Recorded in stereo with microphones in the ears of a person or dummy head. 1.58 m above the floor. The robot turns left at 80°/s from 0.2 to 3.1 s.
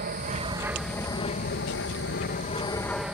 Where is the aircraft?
40° right (ahead or behind); by 3.1 s 10° right (ahead or behind).